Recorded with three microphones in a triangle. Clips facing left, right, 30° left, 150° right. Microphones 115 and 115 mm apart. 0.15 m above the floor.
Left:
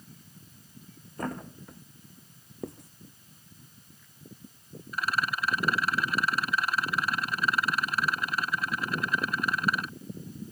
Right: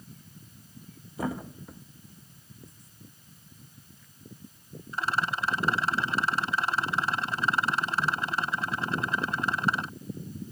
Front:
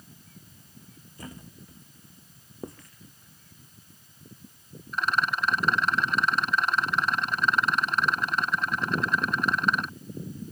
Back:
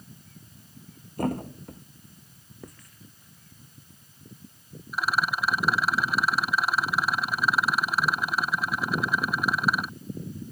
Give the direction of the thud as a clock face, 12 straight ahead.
6 o'clock.